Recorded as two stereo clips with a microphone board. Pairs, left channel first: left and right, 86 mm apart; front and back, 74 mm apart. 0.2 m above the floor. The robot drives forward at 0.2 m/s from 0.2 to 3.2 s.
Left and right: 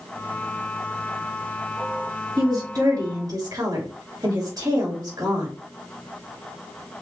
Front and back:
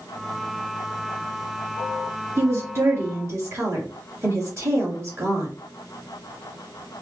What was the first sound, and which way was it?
A woman speaking, 130° right.